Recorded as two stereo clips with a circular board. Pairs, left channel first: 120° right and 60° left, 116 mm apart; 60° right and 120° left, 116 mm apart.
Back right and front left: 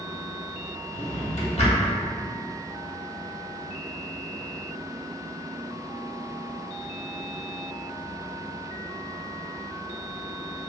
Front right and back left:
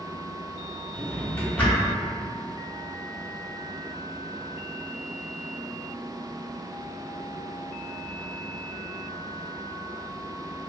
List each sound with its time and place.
0.9 s a drawer: 140° right, 0.7 m